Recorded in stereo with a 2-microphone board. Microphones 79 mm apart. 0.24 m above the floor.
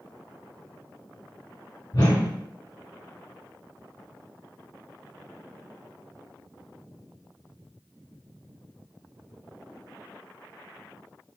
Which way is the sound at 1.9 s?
55° left (ahead or behind).